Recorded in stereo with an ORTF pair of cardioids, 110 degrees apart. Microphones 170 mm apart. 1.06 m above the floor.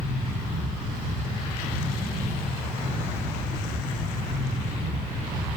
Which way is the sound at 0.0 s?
15° right.